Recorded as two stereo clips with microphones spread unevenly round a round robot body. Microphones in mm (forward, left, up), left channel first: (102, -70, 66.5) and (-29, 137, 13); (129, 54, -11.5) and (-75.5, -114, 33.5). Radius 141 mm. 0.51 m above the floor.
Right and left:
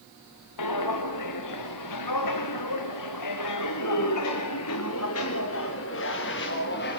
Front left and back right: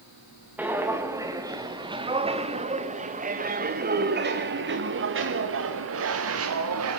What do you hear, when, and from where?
0.6 s footsteps: 60° right, 3.5 m; by 7.0 s 110° right, 3.5 m